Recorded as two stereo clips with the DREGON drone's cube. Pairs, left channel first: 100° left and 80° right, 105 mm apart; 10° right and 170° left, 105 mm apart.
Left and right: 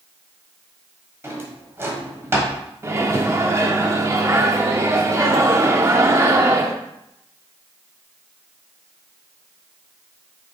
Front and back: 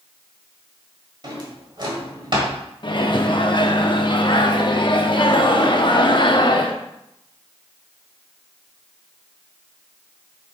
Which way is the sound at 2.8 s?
30° right.